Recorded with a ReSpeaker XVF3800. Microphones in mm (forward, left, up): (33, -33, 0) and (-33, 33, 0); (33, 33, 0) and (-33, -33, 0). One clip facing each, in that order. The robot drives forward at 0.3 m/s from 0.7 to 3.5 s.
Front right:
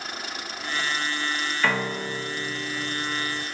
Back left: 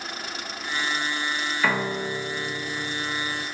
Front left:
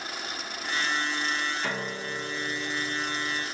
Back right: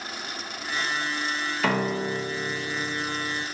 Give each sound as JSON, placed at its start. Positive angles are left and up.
{"t": 1.6, "sound": "a piano", "azimuth_deg": -140, "distance_m": 0.7}